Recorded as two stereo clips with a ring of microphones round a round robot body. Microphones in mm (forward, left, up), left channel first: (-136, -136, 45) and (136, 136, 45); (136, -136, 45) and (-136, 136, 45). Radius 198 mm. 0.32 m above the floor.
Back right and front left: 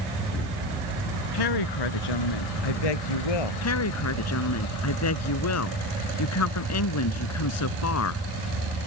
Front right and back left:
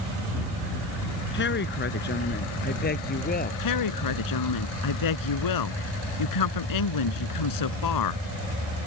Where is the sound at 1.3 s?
105° right; by 3.5 s 115° right.